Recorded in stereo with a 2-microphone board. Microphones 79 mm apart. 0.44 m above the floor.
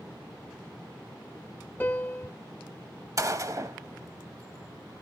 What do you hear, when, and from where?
1.8 s a piano: 25° left (ahead or behind), 0.6 m
3.2 s a gunshot: 45° right (ahead or behind), 0.8 m